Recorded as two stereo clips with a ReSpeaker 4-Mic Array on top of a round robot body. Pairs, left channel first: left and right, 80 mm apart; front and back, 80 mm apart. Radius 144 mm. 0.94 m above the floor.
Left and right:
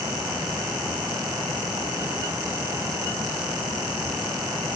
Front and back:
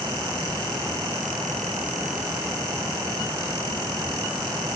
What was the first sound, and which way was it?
Only background noise.